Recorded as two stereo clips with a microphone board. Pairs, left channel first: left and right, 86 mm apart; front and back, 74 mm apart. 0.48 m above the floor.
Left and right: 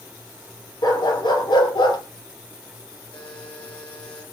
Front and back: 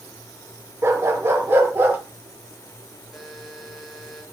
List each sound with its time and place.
0.8 s a dog barking: 125° left, 4 m; by 2.0 s 115° left, 3.5 m
3.1 s a buzzer: 90° left, 7 m